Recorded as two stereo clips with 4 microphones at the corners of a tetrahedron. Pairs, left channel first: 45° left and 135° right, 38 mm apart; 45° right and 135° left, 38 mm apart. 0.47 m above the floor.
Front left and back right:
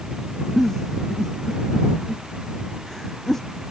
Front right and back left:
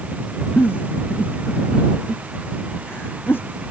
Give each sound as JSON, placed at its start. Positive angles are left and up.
{"t": 0.6, "sound": "a giggle", "azimuth_deg": -35}